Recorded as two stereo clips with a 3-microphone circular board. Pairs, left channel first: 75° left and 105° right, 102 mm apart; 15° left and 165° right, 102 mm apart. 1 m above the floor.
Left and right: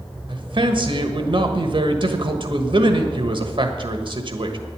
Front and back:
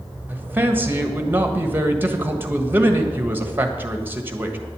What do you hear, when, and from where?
0.3 s a man speaking: 100° right, 1.4 m